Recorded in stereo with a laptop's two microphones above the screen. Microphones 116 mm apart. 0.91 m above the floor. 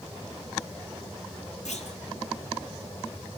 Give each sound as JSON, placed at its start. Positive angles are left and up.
{"t": 1.6, "sound": "a clunk", "side_deg": 85, "distance_m": 5.0}